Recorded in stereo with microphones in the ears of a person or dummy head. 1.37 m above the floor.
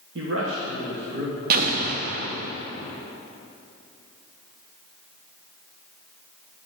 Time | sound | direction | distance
0.1 | a man speaking | 65° right (ahead or behind) | 1.0 m
1.5 | an explosion | 50° right (ahead or behind) | 0.7 m